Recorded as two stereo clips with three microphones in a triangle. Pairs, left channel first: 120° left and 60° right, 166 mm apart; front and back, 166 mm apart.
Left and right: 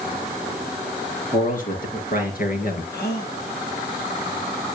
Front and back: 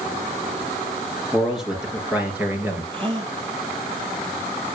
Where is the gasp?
125° left, 4.5 m.